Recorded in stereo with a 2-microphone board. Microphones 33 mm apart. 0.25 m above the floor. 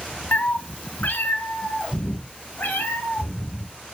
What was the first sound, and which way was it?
A cat meowing, 55° left (ahead or behind).